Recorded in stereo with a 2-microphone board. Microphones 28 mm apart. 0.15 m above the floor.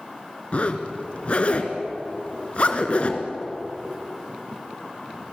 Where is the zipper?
50° left (ahead or behind), 2.5 m.